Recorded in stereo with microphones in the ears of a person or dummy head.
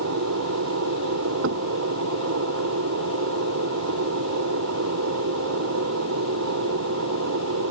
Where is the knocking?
70° right (ahead or behind).